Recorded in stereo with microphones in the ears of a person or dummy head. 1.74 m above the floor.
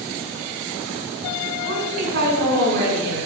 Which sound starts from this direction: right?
A woman speaking, at 1.6 s.